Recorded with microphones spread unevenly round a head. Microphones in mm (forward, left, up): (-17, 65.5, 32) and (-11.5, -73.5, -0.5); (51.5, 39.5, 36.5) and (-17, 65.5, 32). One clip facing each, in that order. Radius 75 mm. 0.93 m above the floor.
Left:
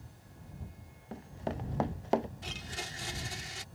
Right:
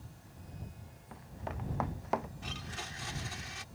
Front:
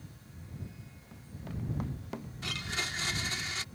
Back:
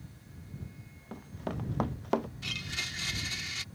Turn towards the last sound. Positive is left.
turn(degrees=35)